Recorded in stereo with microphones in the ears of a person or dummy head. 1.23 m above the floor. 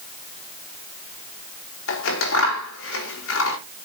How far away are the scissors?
About 4.5 m.